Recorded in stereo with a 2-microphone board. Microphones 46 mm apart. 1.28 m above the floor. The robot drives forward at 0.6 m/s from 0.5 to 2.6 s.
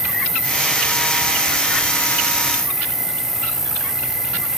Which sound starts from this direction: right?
An insect, at 0.0 s.